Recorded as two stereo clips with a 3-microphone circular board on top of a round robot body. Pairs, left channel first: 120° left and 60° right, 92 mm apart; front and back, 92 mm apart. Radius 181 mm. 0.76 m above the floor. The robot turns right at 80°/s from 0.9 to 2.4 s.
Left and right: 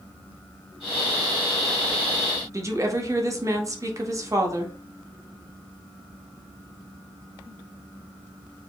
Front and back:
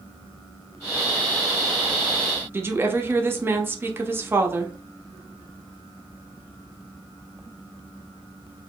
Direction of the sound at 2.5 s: 115° right.